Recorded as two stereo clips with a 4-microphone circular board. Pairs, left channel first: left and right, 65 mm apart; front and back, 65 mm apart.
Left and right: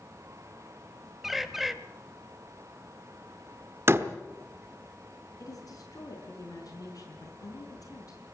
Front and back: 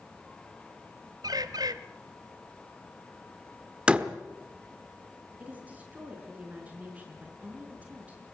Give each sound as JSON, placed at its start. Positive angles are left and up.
{"t": 1.2, "sound": "a bird", "azimuth_deg": -175, "distance_m": 0.9}
{"t": 3.9, "sound": "a door slam", "azimuth_deg": -115, "distance_m": 1.0}
{"t": 5.4, "sound": "a woman speaking", "azimuth_deg": 115, "distance_m": 5.0}